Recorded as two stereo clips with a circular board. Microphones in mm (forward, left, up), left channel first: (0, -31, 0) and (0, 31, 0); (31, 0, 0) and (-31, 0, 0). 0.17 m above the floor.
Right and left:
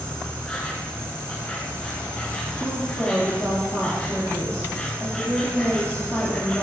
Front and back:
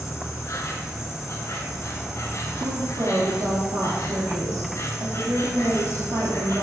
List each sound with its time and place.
0.0 s an insect: 20° right, 1.5 m
2.6 s a woman speaking: 155° right, 3 m